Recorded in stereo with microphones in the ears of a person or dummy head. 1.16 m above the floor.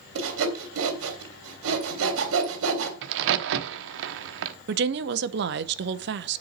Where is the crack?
65° right (ahead or behind), 1.0 m.